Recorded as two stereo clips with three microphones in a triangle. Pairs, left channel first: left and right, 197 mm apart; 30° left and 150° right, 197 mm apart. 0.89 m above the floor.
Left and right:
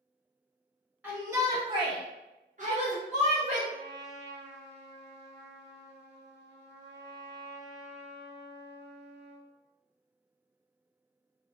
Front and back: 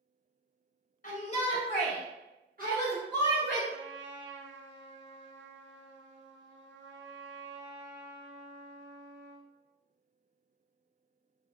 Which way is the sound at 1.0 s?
10° right.